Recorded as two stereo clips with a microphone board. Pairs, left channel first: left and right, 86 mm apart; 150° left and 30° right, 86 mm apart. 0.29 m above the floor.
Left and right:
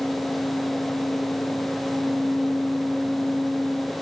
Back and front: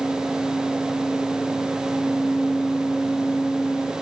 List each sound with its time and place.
Only background noise.